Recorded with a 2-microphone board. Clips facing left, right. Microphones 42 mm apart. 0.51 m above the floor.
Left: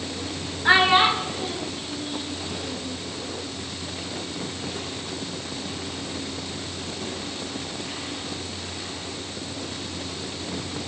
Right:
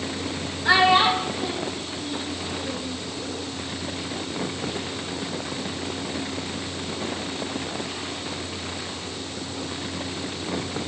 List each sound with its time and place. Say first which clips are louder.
0.7 s a child speaking: even; 30° left (ahead or behind), 1.1 m; by 2.9 s 15° left (ahead or behind), 4 m